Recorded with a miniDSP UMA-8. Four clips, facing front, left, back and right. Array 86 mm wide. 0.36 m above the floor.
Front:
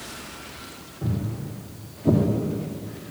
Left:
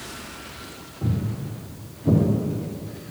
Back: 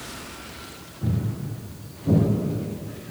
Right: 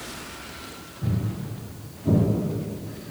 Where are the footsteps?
60° left, 1.7 m; by 2.2 s 5° left, 1.2 m.